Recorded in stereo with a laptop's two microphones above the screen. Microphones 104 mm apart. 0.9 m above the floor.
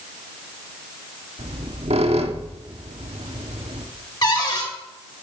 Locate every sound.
1.4 s a squeak: 80° right, 1.1 m
4.2 s a cupboard door: 40° left (ahead or behind), 3 m